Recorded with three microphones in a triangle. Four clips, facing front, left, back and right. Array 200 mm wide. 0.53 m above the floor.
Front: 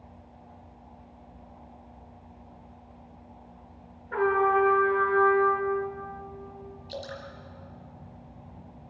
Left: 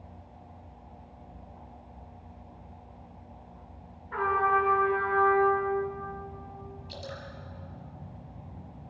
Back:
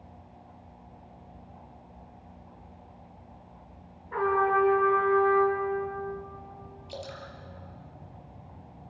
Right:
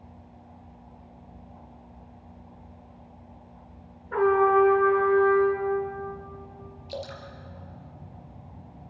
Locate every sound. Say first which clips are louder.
4.1 s a trumpet: right 6 dB, front 1 dB; 70° right, 6 m
6.9 s dripping: right 7 dB, front 2 dB; 80° right, 4 m